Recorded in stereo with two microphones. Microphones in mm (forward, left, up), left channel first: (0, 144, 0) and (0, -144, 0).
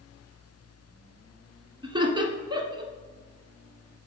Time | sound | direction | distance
1.8 | laughter | 15° right (ahead or behind) | 1.2 m